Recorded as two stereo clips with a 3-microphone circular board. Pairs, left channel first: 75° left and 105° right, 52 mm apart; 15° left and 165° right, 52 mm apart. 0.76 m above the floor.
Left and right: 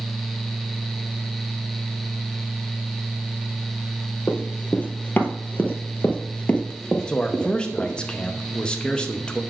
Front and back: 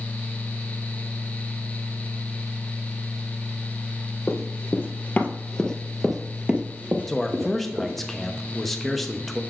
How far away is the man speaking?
About 0.8 m.